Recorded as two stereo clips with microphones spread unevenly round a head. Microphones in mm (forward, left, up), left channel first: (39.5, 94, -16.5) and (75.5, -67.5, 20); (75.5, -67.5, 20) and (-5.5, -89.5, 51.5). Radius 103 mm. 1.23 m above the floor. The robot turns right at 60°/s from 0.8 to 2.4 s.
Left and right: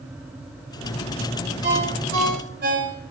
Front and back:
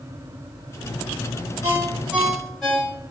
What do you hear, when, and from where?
1.6 s a ringtone: 115° right, 4 m; by 3.0 s 65° right, 4 m